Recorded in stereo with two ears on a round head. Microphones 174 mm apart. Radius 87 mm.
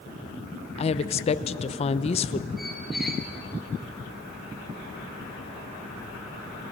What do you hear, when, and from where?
0.8 s a woman speaking: 35° left (ahead or behind), 0.7 m
2.6 s a squeak: centre (ahead or behind), 2 m